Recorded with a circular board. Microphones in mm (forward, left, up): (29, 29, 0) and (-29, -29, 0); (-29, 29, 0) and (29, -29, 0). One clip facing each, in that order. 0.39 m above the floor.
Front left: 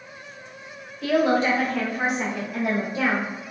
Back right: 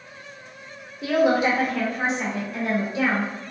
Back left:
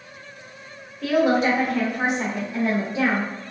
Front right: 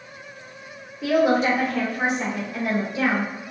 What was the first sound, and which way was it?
A woman speaking, 105° right.